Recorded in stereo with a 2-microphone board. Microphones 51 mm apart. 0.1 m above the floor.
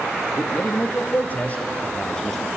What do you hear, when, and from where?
0.4 s a man speaking: 55° left (ahead or behind), 2.5 m; by 2.5 s 5° left (ahead or behind), 2.5 m